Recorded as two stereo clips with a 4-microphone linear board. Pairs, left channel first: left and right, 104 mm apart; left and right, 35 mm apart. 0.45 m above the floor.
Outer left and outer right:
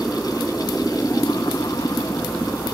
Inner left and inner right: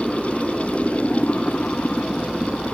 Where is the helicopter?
5° left (ahead or behind).